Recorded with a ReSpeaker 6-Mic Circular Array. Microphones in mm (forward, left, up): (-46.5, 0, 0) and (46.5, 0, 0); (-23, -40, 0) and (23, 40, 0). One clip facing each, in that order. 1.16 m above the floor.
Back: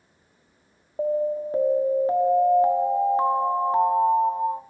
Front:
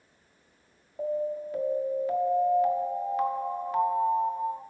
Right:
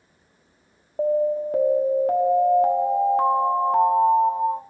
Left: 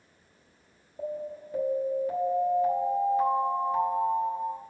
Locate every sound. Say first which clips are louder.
1.0 s an alarm: back 6 dB, right 14 dB; 125° right, 1.3 m